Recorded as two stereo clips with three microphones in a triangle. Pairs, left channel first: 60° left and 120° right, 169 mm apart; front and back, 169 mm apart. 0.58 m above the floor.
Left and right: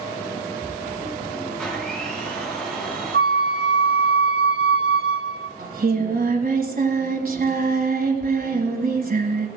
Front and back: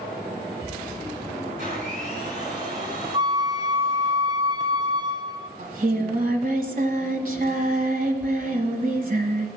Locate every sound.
1.6 s a blender: 145° left, 4.5 m
3.1 s a flute: 115° right, 0.9 m
5.6 s singing: 150° right, 1.5 m